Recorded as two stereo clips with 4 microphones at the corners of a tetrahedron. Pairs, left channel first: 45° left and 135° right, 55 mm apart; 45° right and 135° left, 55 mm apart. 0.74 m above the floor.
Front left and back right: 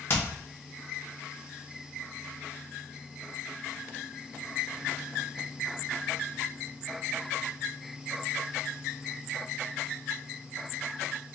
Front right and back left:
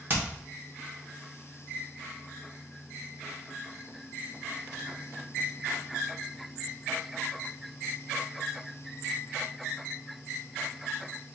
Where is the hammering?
80° left, 1.4 m.